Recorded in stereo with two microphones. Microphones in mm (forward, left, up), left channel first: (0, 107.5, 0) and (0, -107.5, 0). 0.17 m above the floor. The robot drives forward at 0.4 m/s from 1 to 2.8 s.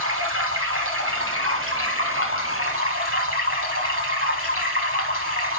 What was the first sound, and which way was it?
Running water, 80° right.